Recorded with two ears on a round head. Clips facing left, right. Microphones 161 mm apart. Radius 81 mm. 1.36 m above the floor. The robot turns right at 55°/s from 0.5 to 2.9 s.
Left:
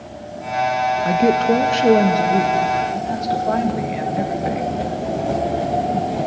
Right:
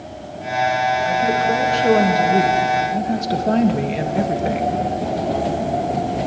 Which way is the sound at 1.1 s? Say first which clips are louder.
Left 3 dB; 115° left.